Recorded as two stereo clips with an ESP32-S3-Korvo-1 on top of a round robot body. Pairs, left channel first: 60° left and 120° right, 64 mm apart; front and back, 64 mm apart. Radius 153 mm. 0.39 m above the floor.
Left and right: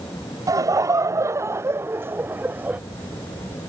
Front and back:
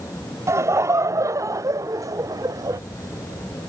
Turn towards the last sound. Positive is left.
turn(degrees=175)